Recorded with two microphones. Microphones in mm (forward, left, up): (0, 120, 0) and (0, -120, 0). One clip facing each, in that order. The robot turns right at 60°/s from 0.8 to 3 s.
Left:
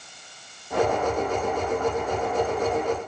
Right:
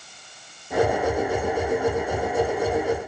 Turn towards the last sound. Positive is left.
No sound to turn to.